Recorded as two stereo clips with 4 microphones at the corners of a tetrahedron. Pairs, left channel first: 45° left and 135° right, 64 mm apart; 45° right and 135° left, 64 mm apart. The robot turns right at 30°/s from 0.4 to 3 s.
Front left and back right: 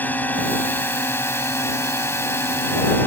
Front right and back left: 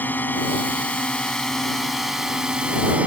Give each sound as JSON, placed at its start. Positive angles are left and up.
{"t": 0.0, "sound": "a drone", "azimuth_deg": 0}